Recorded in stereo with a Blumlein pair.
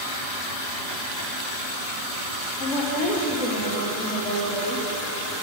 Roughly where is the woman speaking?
Ahead left.